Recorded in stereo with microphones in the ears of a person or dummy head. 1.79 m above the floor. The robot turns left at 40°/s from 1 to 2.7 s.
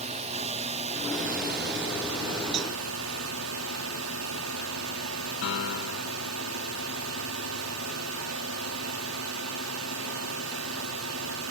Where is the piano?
75° left (ahead or behind).